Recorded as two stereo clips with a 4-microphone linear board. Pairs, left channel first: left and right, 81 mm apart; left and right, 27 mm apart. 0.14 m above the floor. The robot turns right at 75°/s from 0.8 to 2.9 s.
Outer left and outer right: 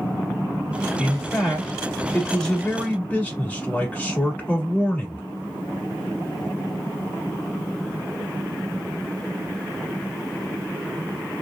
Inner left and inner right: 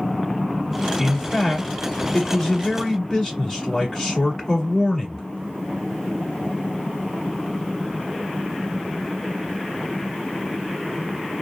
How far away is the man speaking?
About 1.1 m.